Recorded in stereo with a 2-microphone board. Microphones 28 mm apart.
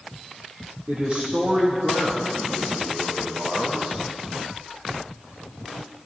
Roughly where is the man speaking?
Right.